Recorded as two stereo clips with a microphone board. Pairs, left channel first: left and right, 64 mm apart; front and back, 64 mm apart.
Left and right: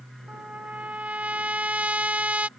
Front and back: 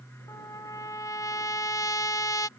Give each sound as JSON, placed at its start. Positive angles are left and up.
{"t": 0.3, "sound": "a trumpet", "azimuth_deg": -20}